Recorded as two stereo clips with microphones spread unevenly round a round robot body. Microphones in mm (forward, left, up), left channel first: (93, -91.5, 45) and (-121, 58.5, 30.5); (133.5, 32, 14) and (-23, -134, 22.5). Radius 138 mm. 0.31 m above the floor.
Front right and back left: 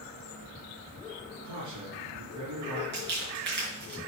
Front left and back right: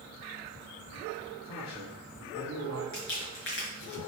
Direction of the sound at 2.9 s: 95° left.